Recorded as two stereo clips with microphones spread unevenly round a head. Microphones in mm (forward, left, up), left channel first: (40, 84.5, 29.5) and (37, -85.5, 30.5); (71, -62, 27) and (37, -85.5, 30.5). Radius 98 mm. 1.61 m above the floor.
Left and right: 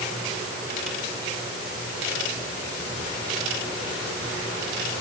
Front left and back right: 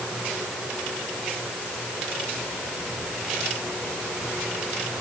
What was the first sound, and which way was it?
Only background noise.